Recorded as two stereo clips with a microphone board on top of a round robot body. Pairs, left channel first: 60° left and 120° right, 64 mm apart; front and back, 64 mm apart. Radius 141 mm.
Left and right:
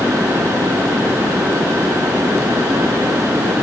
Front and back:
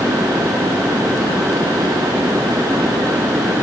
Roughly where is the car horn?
No car horn in this recording.